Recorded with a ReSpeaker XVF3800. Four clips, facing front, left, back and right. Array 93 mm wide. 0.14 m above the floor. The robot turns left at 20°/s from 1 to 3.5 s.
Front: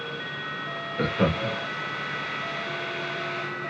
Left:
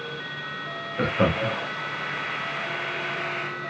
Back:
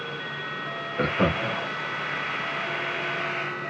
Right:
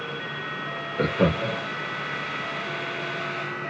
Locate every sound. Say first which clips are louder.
1.0 s laughter: even, back 1 dB; 130° left, 1.1 m; by 1.6 s 120° left, 1.1 m